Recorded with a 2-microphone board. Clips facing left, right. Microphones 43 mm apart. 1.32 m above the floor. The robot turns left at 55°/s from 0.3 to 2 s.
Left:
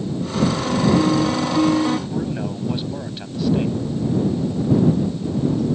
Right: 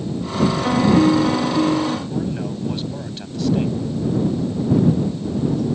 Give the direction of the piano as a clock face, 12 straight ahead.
5 o'clock.